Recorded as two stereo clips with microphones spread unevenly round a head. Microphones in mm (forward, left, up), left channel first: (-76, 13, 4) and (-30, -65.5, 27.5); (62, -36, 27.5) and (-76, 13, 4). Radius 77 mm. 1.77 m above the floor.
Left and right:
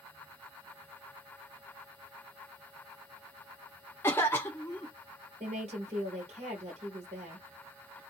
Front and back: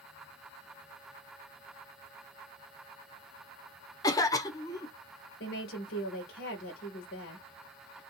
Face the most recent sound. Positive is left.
turn(degrees=-25)